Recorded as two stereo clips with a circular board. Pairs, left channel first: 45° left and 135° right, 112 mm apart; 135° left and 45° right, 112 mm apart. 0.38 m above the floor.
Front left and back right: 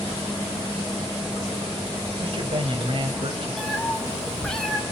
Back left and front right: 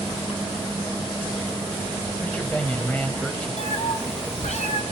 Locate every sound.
2.2 s a man speaking: 150° right, 2.0 m
3.6 s a cat meowing: 130° left, 2 m